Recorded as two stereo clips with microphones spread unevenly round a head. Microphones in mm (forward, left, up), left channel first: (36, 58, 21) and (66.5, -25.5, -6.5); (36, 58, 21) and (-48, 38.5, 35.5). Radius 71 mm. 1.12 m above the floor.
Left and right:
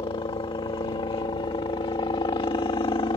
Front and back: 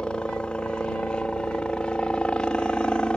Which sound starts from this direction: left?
A helicopter, at 0.0 s.